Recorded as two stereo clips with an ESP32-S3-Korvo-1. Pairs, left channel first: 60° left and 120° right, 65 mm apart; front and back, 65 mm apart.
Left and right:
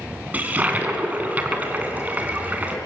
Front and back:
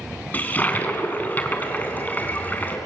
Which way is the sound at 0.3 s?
55° right.